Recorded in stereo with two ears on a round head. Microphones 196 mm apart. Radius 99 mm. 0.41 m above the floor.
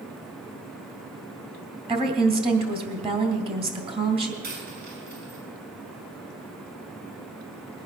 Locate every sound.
1.9 s a woman speaking: 25° right (ahead or behind), 2.5 m
4.4 s a dropped coin: 45° right (ahead or behind), 6.5 m